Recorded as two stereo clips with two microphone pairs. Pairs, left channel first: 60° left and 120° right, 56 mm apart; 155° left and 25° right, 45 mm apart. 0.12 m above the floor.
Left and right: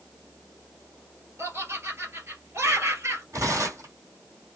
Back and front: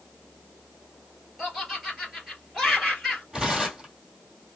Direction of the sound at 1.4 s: 105° right.